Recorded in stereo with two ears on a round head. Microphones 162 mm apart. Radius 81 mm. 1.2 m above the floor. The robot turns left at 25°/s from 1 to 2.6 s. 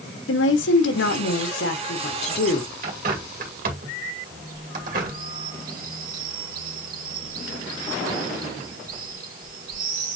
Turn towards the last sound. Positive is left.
turn(degrees=-50)  # may be behind; listen again after turning